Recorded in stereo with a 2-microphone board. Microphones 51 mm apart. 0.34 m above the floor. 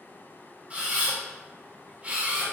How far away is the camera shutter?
About 1.4 m.